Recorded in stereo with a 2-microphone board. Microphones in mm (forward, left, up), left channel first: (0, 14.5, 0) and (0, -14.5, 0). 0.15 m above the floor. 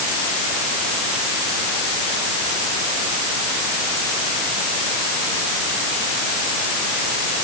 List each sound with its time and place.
Only background noise.